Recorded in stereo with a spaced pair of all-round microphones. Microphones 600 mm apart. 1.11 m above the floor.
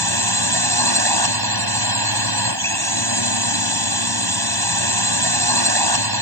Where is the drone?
35° right (ahead or behind).